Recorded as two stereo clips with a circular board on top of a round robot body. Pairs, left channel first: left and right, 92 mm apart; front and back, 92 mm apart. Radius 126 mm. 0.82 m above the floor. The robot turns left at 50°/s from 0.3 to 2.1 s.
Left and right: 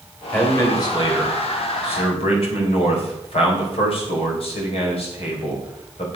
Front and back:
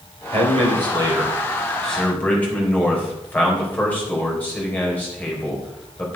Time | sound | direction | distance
0.3 | a man speaking | 160° left | 3.5 m